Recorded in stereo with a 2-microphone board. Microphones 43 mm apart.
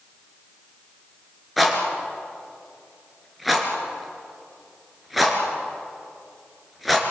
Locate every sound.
1.6 s a rattle: centre (ahead or behind), 3.5 m